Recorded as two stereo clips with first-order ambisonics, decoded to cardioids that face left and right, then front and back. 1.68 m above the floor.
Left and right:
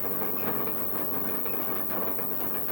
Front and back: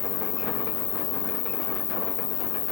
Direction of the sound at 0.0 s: 20° left.